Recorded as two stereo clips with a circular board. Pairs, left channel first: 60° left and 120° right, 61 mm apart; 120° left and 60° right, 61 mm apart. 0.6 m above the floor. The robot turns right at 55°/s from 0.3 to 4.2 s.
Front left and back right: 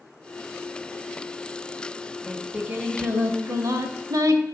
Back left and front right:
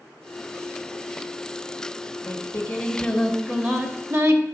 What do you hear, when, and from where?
2.3 s singing: 155° left, 1.2 m; by 4.4 s 100° right, 1.2 m